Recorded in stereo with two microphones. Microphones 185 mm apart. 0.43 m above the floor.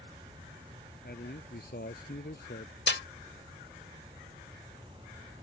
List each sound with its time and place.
1.0 s a man speaking: 60° left (ahead or behind)
2.9 s a snare drum: 70° left (ahead or behind)